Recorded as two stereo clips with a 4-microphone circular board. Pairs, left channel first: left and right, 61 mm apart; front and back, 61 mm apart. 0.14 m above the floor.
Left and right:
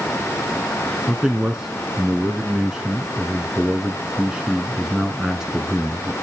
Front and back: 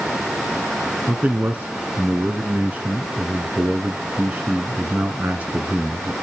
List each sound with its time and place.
1.1 s a man speaking: 155° right, 1.2 m